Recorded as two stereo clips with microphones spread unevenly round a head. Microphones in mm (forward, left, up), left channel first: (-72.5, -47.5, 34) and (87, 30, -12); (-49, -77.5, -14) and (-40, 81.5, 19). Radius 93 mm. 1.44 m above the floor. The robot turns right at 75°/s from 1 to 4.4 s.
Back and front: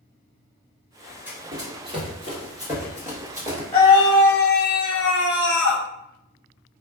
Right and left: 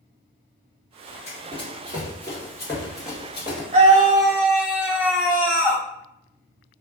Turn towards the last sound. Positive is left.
turn(degrees=175)